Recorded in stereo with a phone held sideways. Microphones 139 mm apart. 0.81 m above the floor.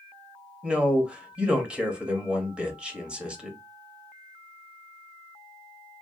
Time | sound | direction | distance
0.6 | a man speaking | 10° right (ahead or behind) | 0.9 m